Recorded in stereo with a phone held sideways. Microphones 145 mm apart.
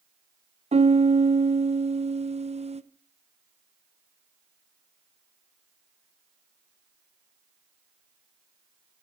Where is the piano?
50° right (ahead or behind), 1.0 m.